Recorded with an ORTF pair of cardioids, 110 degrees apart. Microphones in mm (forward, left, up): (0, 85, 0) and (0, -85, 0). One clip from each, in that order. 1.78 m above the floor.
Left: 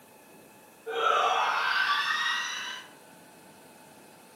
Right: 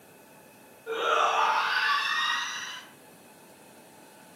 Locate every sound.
0.9 s a shout: straight ahead, 1.4 m; by 2.8 s 40° left, 0.8 m